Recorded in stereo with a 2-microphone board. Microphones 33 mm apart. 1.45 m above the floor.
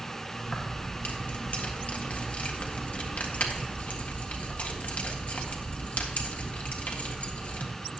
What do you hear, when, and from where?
0.5 s keys jangling: 50° left (ahead or behind), 1.6 m